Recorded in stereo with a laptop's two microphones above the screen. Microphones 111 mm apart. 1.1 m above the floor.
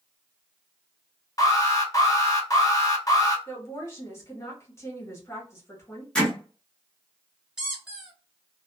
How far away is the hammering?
About 0.9 m.